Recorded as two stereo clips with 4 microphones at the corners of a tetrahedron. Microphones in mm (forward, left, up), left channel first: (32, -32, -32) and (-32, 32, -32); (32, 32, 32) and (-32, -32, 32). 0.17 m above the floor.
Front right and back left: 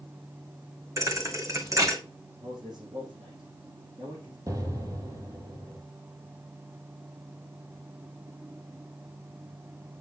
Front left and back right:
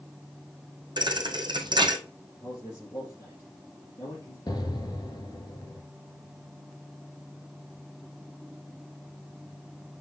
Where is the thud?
170° right, 1.3 m.